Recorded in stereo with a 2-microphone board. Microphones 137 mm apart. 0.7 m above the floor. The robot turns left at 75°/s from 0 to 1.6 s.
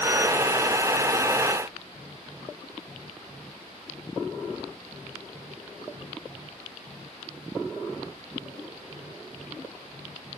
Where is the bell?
No bell in this recording.